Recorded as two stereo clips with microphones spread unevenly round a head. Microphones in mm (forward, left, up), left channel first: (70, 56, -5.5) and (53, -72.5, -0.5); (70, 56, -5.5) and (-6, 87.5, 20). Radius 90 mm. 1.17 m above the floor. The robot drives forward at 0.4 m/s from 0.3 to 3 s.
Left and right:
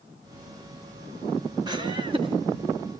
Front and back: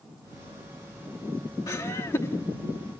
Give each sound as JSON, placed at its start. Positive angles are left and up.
{"t": 1.7, "sound": "laughter", "azimuth_deg": -45, "distance_m": 1.2}